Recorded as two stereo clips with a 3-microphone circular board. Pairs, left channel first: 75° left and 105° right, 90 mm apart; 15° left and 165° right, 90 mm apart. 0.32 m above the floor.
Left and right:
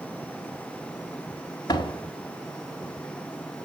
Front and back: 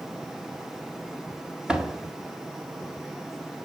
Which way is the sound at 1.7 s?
115° left.